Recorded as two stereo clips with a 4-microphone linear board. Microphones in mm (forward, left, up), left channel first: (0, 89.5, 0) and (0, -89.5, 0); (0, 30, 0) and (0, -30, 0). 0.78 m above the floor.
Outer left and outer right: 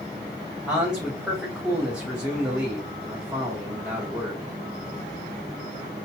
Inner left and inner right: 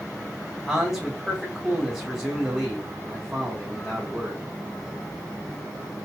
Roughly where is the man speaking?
Centre.